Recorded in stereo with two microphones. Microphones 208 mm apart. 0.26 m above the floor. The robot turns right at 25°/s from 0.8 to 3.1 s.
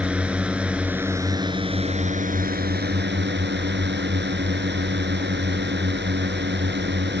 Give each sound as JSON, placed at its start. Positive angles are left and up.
{"t": 0.0, "sound": "a drone", "azimuth_deg": -175}